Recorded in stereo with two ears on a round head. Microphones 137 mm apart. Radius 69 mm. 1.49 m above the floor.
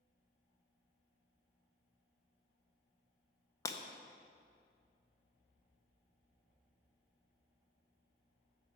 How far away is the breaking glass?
About 0.5 m.